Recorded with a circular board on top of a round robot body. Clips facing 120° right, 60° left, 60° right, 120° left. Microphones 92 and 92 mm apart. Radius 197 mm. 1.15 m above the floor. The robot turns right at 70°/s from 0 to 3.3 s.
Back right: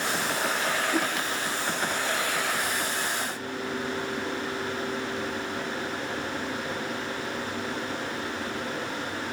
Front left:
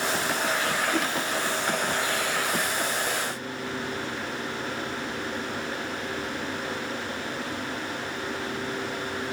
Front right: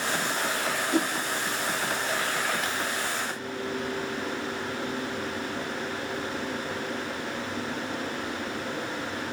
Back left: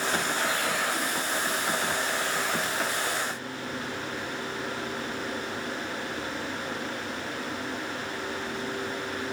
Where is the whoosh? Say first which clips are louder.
Even, front right 5 dB; 40° right, 0.9 m; by 1.1 s 25° right, 0.9 m.